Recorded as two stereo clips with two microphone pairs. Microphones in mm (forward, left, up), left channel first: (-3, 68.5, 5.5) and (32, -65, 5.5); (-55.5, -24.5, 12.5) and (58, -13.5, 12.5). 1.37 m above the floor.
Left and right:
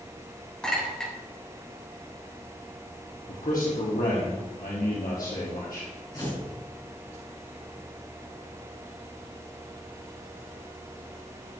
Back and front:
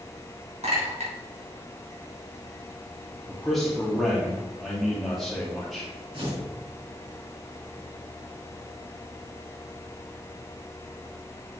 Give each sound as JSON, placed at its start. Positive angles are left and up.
{"t": 0.6, "sound": "a clink", "azimuth_deg": 20, "distance_m": 3.5}
{"t": 3.3, "sound": "a man speaking", "azimuth_deg": 100, "distance_m": 2.0}
{"t": 6.1, "sound": "tearing paper", "azimuth_deg": 45, "distance_m": 4.0}